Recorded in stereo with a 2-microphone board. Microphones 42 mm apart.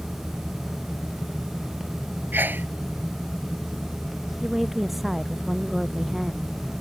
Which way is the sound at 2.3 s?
50° right (ahead or behind).